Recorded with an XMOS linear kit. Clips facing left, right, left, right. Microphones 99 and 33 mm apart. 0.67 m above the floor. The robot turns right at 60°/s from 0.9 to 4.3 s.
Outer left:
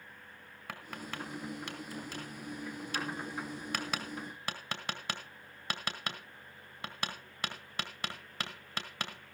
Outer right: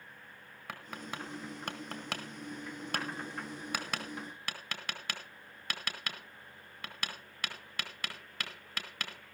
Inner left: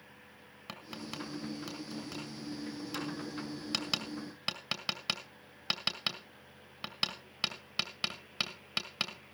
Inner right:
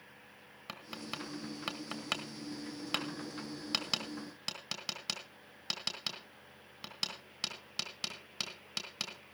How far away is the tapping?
About 2 m.